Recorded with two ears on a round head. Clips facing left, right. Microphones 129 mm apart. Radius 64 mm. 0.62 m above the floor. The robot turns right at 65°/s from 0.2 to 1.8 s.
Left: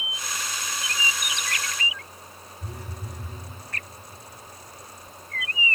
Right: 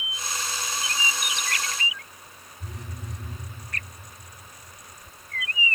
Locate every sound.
2.6 s a phone buzzing: 5° left (ahead or behind), 8 m